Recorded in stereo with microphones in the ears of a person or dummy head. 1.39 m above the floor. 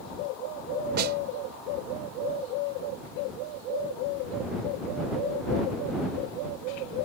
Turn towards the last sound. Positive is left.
turn(degrees=-60)  # may be behind; listen again after turning